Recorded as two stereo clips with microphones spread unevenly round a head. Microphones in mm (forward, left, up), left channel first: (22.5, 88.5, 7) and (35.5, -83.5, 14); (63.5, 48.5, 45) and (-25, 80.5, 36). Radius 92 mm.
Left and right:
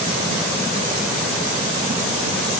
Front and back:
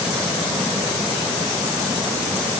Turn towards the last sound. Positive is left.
No sound to turn to.